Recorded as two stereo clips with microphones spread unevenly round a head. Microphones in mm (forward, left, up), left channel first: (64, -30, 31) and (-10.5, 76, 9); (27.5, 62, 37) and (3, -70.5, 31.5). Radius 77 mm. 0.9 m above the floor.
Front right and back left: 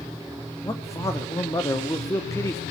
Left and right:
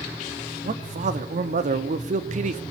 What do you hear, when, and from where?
0.6 s a man speaking: 130° right, 1.9 m